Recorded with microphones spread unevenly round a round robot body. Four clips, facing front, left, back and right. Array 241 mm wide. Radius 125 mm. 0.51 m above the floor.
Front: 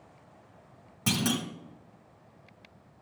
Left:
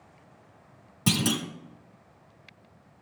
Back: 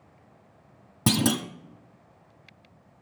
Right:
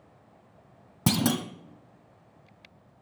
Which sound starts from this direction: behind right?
A clunk, at 1.1 s.